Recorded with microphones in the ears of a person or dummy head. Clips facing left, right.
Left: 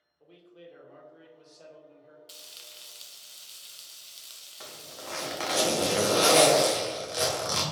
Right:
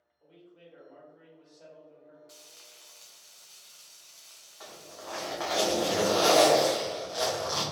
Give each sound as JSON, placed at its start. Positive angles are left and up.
{"t": 0.2, "sound": "a man speaking", "side_deg": 70, "distance_m": 1.8}
{"t": 2.3, "sound": "frying", "side_deg": 40, "distance_m": 0.7}
{"t": 4.6, "sound": "a zipper", "side_deg": 35, "distance_m": 1.2}